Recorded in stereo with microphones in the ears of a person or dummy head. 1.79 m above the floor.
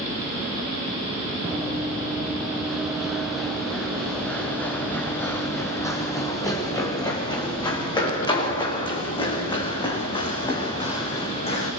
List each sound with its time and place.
1.4 s running footsteps: 10° right (ahead or behind), 4 m; by 11.7 s 35° left (ahead or behind), 7.5 m